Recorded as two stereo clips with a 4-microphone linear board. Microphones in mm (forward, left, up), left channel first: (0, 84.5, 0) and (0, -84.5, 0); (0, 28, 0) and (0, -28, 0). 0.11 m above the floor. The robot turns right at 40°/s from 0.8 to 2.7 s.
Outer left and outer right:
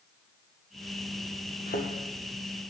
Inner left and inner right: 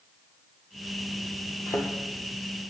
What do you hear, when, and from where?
1.7 s a thud: 65° left (ahead or behind), 1.7 m; by 1.9 s 70° left (ahead or behind), 1.7 m